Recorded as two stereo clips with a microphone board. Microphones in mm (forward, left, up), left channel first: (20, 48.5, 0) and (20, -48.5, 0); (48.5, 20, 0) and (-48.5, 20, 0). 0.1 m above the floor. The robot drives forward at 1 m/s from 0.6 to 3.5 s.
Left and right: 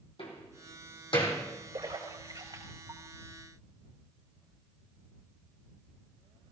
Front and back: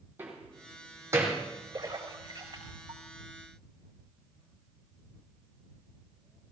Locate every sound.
0.2 s a door slam: 110° left, 3.5 m; by 1.4 s 120° left, 4 m
1.7 s a splash: 130° right, 4 m; by 3.0 s 140° right, 5 m